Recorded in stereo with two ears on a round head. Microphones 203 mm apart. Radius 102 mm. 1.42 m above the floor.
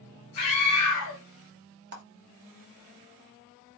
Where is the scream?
85° left, 1.4 m.